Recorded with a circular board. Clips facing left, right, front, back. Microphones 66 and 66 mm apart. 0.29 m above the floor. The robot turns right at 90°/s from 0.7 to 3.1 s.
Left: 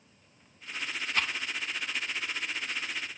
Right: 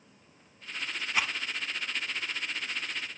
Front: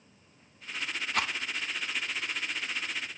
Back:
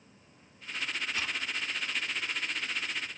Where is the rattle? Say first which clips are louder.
Right 1 dB, front 8 dB; 15° right, 1.2 m; by 1.3 s 5° left, 1.2 m.